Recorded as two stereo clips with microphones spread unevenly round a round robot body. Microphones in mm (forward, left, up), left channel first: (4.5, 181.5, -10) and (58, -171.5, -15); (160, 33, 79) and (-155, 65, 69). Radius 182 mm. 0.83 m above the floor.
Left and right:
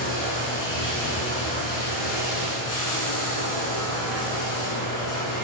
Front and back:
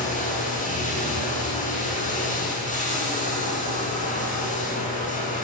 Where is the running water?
60° left, 8 m.